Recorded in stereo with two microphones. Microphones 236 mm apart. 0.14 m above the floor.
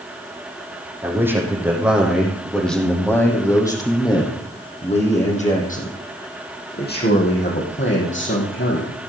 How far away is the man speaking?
About 5 m.